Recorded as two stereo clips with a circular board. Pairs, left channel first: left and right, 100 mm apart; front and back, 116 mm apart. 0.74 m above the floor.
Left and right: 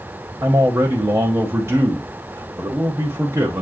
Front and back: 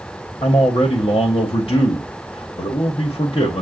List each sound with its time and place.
0.4 s a man speaking: 30° right, 0.9 m